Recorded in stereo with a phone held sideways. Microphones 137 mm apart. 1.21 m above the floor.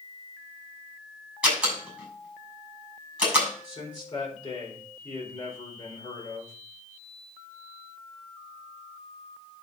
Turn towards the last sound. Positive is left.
turn(degrees=30)  # may be behind; listen again after turning